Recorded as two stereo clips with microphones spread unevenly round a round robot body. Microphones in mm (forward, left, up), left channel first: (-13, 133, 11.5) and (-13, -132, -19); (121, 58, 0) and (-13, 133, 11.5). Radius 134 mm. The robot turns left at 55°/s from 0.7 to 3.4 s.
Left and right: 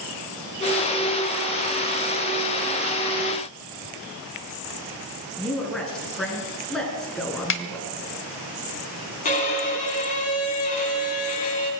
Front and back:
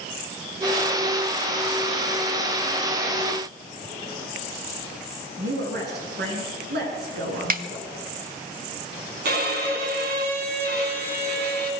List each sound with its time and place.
5.4 s a woman speaking: straight behind, 5.5 m
7.5 s a snare drum: 135° left, 1.3 m
9.2 s a violin: 155° left, 4 m